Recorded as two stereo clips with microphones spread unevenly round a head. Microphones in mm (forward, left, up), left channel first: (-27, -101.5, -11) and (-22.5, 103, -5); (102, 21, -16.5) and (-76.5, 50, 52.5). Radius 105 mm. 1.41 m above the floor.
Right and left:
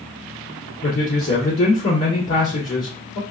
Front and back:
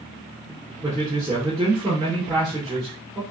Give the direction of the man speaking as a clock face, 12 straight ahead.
4 o'clock.